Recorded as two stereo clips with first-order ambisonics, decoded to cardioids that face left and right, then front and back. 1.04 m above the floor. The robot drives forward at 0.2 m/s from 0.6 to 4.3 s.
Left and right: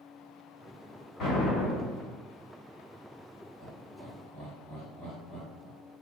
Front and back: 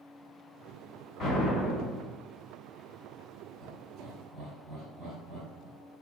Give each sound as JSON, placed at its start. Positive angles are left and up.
{"t": 1.2, "sound": "an explosion", "azimuth_deg": 60, "distance_m": 1.4}
{"t": 3.6, "sound": "laughter", "azimuth_deg": 125, "distance_m": 1.3}